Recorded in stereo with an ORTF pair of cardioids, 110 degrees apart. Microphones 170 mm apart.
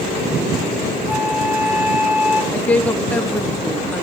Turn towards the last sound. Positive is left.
turn(degrees=10)